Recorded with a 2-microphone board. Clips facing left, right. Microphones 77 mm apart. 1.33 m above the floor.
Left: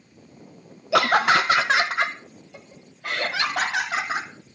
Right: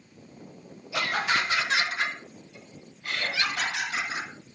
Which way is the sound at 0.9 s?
75° left (ahead or behind).